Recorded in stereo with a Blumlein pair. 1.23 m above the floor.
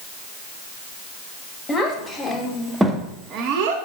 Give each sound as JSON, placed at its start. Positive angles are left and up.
{"t": 1.7, "sound": "a child speaking", "azimuth_deg": 20, "distance_m": 1.2}